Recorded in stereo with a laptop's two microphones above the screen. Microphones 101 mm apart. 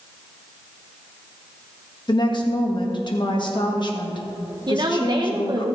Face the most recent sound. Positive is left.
turn(degrees=-45)  # may be behind; listen again after turning